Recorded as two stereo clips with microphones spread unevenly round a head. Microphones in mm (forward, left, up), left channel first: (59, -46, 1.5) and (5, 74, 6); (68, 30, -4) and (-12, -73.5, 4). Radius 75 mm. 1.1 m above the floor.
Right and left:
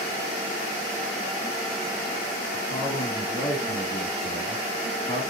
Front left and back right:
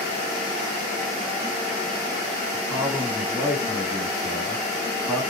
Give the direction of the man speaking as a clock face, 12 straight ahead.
2 o'clock.